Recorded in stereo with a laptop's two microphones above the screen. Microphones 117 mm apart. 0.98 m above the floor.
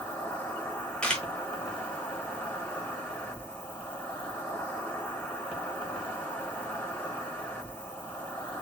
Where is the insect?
20° left (ahead or behind), 1.1 m.